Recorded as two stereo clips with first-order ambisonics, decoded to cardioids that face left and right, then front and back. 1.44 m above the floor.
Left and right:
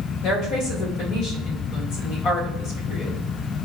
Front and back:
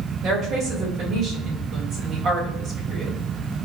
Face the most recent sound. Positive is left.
turn(degrees=125)